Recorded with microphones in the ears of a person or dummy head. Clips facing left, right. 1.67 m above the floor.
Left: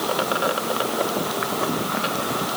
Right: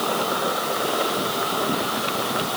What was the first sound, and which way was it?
Only background noise.